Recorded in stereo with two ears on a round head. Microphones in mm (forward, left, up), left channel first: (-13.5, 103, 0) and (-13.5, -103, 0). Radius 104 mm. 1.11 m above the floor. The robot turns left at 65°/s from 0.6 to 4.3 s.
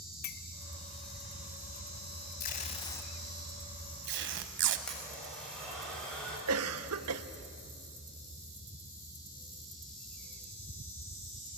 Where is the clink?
45° left (ahead or behind), 0.9 m.